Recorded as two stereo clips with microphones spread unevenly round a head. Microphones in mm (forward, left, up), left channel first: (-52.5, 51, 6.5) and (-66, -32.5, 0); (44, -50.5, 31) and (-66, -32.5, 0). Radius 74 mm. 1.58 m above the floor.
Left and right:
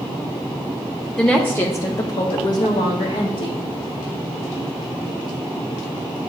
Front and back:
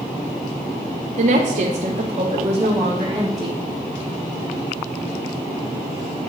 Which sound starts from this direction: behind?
A woman speaking, at 1.2 s.